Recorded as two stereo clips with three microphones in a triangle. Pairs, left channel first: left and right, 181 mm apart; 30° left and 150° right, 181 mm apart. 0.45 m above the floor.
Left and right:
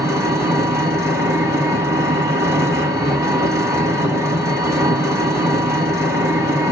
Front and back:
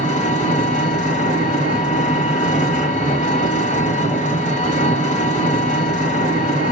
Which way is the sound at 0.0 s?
15° right.